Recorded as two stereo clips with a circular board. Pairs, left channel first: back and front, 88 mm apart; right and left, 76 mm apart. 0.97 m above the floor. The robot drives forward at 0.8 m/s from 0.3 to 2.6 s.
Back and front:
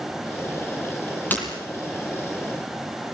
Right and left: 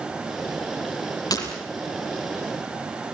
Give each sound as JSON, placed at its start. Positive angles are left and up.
{"t": 1.3, "sound": "breaking glass", "azimuth_deg": -110, "distance_m": 7.5}